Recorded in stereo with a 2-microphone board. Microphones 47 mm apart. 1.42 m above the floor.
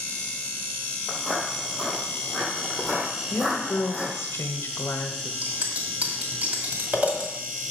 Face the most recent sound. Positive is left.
turn(degrees=-40)  # may be behind; listen again after turning